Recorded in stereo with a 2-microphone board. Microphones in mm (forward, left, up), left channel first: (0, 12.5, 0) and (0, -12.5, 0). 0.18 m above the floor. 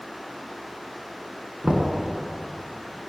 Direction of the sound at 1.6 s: 40° right (ahead or behind).